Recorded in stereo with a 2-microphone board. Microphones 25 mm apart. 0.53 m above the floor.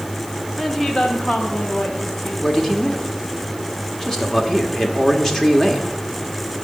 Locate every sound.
0.6 s a woman speaking: 10° left (ahead or behind), 1.7 m; by 2.3 s 65° left (ahead or behind), 3 m
2.4 s a man speaking: 20° left (ahead or behind), 1.5 m